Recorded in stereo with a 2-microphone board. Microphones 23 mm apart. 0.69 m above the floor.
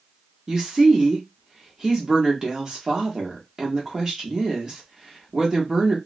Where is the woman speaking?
25° right (ahead or behind), 1.1 m.